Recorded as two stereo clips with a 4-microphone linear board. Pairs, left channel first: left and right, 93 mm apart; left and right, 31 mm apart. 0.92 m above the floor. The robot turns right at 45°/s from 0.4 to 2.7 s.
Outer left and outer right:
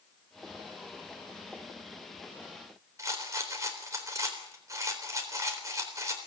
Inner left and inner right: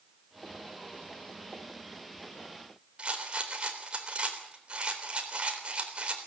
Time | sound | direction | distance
3.0 | a rattle | 30° right (ahead or behind) | 3.5 m